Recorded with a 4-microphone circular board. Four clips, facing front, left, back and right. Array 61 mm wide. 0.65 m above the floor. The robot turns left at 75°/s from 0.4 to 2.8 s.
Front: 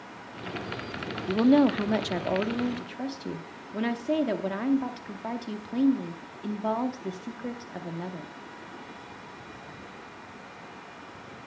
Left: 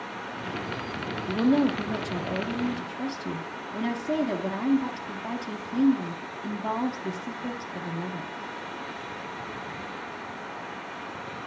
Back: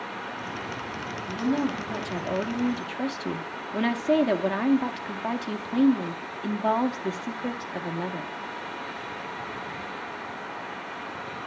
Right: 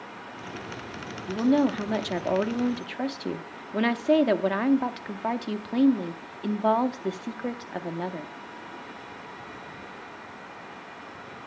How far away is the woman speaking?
About 0.8 m.